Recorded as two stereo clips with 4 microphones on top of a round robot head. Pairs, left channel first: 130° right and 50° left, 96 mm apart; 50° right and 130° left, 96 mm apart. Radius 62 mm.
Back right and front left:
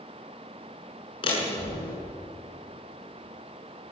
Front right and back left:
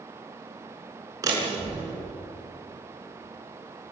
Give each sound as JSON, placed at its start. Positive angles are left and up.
{"t": 1.2, "sound": "a door slam", "azimuth_deg": -170, "distance_m": 6.5}